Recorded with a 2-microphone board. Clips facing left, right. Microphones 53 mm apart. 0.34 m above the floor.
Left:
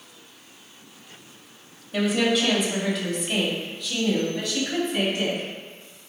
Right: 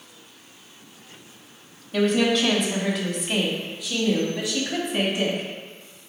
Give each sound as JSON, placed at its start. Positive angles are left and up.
{"t": 1.9, "sound": "a woman speaking", "side_deg": 5, "distance_m": 1.7}